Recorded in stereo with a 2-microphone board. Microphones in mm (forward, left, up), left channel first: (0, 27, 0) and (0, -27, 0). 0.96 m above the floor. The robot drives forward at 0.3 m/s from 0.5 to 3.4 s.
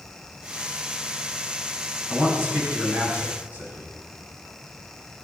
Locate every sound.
2.1 s a man speaking: 30° right (ahead or behind), 8.5 m